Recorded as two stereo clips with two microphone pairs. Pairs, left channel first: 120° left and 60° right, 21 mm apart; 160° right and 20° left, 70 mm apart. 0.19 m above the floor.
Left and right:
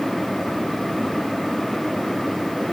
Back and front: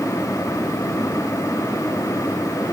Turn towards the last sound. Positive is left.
No sound to turn to.